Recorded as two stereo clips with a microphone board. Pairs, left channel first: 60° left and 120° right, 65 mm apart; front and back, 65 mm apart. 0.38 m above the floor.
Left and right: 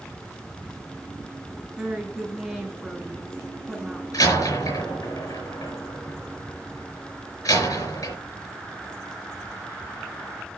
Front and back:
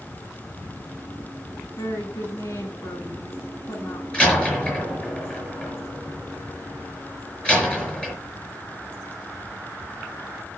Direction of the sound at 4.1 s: 70° left.